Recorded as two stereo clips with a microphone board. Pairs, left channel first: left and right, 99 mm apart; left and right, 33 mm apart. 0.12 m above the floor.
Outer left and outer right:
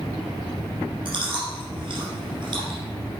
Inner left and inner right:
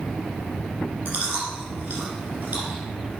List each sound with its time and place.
1.1 s chewing: 55° right (ahead or behind), 4 m